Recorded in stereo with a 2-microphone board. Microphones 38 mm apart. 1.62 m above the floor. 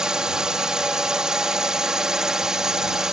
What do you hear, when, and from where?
0.0 s a drone: 20° right (ahead or behind); by 3.1 s 15° right (ahead or behind)